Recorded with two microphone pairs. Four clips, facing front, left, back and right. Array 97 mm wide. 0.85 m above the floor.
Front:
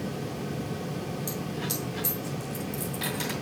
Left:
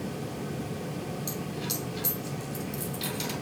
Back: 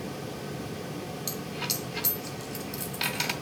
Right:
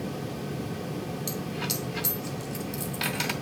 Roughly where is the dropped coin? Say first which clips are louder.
Right 2 dB, front 3 dB; right.